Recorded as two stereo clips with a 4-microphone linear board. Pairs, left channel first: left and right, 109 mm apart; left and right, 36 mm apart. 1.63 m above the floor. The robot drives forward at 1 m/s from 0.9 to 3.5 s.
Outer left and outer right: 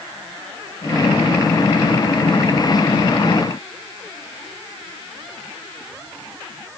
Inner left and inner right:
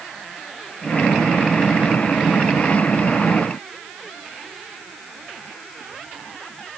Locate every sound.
Only background noise.